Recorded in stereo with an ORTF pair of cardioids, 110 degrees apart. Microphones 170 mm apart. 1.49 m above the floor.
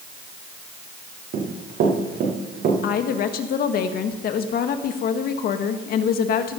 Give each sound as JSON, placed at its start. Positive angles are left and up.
{"t": 1.3, "sound": "running footsteps", "azimuth_deg": -65, "distance_m": 7.0}
{"t": 2.8, "sound": "a woman speaking", "azimuth_deg": 60, "distance_m": 1.8}